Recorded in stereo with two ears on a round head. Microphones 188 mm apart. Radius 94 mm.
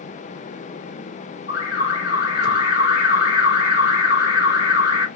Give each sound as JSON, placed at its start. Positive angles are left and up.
{"t": 1.5, "sound": "an alarm", "side_deg": 45, "distance_m": 2.0}